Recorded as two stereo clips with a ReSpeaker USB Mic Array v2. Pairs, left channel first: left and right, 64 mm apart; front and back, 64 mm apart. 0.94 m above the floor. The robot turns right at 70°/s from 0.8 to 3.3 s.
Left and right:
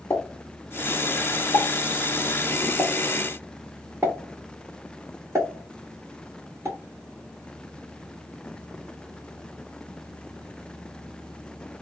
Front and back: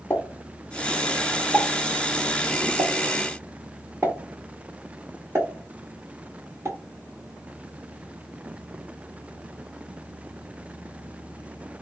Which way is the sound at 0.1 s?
55° left.